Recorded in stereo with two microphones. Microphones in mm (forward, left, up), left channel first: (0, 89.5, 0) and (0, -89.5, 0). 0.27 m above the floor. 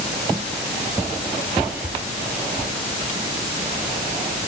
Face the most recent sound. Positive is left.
No sound to turn to.